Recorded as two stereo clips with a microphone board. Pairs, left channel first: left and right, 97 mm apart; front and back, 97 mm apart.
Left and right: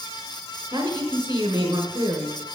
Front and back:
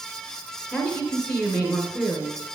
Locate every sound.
0.7 s a woman speaking: 55° right, 1.3 m